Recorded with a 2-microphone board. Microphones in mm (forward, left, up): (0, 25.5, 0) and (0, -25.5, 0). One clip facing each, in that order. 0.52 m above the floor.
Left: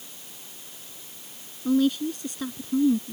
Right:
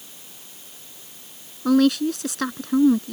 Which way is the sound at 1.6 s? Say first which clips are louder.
Right 5 dB; 80° right.